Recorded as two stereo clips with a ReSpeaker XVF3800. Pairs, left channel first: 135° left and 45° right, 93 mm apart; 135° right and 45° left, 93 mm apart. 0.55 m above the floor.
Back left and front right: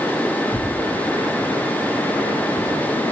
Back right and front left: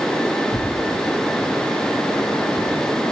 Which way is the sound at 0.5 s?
155° right.